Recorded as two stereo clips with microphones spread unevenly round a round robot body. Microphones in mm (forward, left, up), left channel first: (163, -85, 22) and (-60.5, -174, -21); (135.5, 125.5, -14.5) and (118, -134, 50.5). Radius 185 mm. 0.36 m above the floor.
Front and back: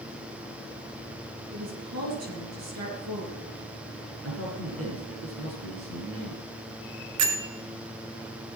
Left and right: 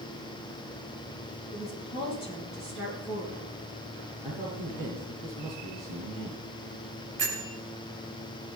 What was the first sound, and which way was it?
A woman speaking, 175° left.